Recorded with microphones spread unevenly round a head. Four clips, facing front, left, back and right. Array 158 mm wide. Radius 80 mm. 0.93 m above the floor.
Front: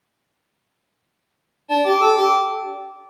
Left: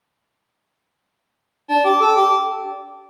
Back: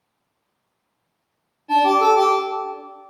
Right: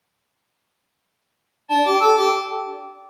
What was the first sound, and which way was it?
A ringtone, 115° left.